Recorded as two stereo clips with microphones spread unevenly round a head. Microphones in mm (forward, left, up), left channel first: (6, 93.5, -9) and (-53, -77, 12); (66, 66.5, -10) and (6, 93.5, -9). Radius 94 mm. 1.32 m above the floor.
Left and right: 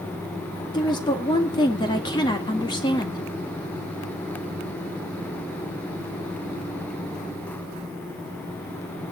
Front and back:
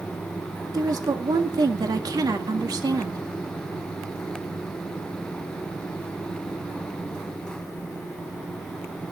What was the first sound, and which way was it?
A woman speaking, 140° left.